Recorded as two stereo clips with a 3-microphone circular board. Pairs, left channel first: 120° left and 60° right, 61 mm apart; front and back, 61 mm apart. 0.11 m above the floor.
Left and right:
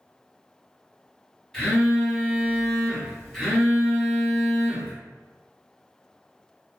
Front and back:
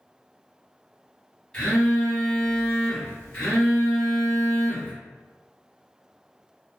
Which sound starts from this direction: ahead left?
A phone buzzing, at 1.5 s.